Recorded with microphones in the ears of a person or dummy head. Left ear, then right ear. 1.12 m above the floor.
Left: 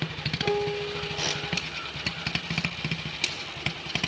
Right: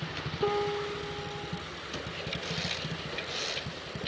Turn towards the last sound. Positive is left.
turn(degrees=-15)  # may be behind; listen again after turning